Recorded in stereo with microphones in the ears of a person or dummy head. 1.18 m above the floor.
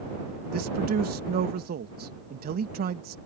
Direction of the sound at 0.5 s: 45° right (ahead or behind).